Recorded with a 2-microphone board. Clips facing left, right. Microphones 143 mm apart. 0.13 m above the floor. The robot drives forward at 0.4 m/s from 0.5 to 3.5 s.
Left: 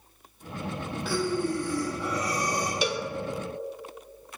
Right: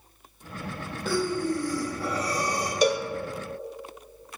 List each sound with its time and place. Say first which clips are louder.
1.1 s breathing: right 1 dB; 45° right (ahead or behind), 1.4 m; by 2.7 s 30° right (ahead or behind), 1.9 m
2.8 s a cowbell: right 10 dB; 45° right (ahead or behind), 0.7 m; by 3.1 s 50° right (ahead or behind), 0.6 m